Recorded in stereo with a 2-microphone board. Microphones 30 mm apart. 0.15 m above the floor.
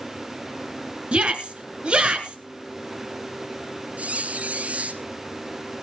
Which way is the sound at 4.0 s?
55° right (ahead or behind).